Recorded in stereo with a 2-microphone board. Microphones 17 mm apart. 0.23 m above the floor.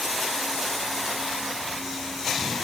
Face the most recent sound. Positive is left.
No sound to turn to.